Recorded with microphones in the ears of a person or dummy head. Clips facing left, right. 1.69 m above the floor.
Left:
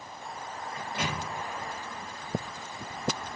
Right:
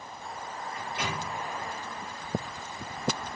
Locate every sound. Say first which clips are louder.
0.8 s a microwave: left 1 dB; 25° left (ahead or behind), 0.6 m